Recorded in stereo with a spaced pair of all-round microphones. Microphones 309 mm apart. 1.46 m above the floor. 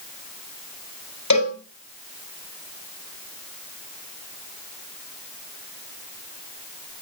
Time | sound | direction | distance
1.3 | a cowbell | 70° left (ahead or behind) | 7.5 m